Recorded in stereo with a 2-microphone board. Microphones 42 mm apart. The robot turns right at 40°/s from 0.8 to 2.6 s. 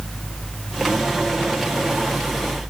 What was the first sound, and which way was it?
Only background noise.